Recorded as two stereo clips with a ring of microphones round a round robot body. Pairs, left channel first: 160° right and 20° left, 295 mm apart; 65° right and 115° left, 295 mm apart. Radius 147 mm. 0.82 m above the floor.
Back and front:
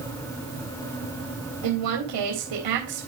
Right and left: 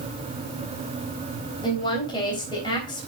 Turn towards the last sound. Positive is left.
turn(degrees=10)